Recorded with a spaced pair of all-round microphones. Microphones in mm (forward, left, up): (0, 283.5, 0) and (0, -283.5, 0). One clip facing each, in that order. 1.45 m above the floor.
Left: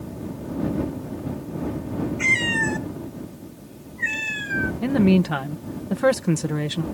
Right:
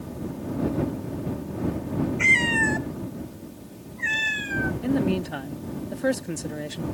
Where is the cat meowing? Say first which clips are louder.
Even; 55° left (ahead or behind); by 4.7 s 45° left (ahead or behind).